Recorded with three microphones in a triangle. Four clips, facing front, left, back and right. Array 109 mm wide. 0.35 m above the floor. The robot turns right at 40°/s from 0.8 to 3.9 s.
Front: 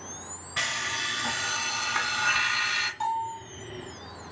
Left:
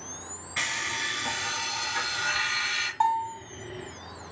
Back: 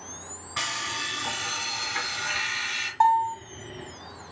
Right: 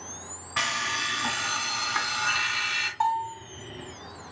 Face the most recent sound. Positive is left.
turn(degrees=-155)